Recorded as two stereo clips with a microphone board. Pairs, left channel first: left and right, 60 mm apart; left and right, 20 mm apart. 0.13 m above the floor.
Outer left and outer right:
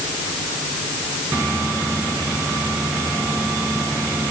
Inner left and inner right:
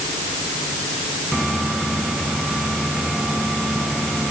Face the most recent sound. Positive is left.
No sound to turn to.